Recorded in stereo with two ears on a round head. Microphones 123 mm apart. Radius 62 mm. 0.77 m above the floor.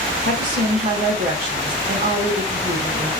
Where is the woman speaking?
60° right (ahead or behind), 2.5 m.